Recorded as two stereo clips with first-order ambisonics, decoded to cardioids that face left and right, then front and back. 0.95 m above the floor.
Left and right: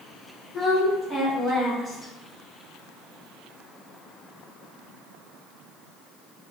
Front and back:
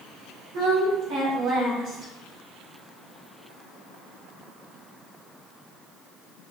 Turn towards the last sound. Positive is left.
turn(degrees=175)